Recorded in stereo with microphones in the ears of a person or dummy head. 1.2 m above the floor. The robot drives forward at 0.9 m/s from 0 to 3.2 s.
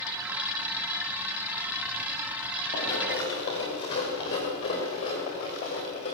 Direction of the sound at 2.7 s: 20° left (ahead or behind).